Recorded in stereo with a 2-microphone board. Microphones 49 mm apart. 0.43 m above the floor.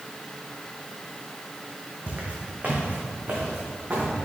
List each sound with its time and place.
2.1 s footsteps: 35° right (ahead or behind), 1.5 m; by 4.1 s 40° right (ahead or behind), 3 m